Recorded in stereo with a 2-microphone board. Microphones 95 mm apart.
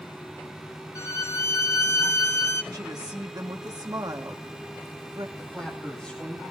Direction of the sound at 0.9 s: 35° left (ahead or behind).